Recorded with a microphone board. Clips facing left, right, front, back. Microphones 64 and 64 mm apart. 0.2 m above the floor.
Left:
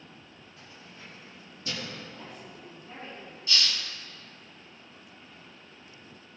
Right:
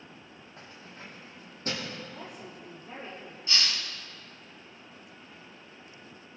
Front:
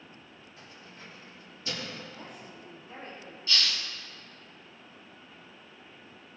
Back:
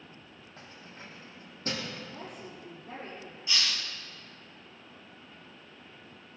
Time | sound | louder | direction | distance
0.6 | keys jangling | right 3 dB, back 2 dB | 135° right | 5 m
2.1 | a woman speaking | right 1 dB, back 2 dB | 160° right | 4.5 m
3.5 | a hiss | even, front 1 dB | 120° right | 1.6 m